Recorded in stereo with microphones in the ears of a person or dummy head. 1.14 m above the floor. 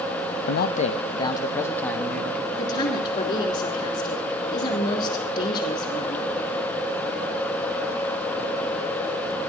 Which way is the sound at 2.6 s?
25° left (ahead or behind).